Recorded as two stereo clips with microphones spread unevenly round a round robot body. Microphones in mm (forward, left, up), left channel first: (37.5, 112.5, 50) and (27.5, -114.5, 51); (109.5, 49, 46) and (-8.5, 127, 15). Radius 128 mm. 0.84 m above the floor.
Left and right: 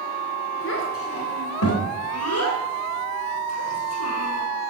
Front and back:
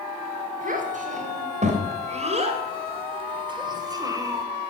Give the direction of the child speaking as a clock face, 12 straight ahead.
8 o'clock.